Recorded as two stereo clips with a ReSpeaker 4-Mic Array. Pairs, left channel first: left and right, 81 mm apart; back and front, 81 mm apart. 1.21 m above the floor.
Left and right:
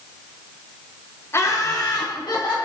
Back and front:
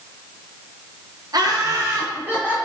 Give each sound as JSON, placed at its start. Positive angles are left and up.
{"t": 1.3, "sound": "laughter", "azimuth_deg": 30, "distance_m": 1.0}